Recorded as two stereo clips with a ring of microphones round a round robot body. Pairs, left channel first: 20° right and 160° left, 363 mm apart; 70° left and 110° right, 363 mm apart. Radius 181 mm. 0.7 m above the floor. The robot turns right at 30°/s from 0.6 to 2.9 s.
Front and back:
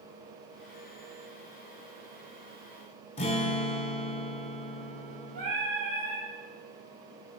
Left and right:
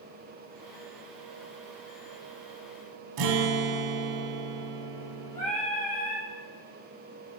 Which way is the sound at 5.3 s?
120° left.